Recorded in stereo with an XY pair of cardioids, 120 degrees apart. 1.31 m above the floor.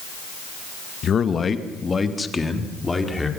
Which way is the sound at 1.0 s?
45° left.